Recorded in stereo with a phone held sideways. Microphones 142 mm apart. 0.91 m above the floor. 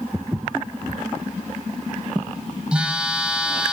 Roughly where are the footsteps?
Centre.